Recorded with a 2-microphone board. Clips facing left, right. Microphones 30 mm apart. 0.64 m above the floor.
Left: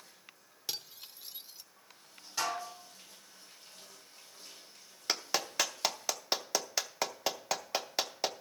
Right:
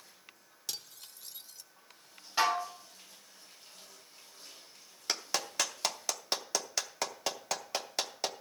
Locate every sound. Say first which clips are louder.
0.7 s cutlery clinking: left 2 dB; 20° left (ahead or behind), 0.8 m
2.4 s dishes clattering: right 6 dB; 30° right (ahead or behind), 1.2 m
5.1 s a clap: left 1 dB; 10° left (ahead or behind), 0.7 m